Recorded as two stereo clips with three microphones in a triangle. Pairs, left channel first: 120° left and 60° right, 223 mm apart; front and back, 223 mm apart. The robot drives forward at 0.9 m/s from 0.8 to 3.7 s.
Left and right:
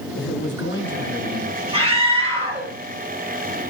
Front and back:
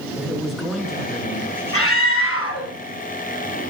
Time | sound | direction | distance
0.2 | a man speaking | 90° left | 5 m
1.7 | a scream | 5° left | 8.5 m